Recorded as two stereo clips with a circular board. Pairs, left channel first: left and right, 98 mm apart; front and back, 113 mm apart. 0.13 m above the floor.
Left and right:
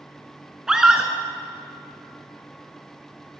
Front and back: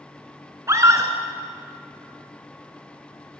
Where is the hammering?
I don't hear hammering.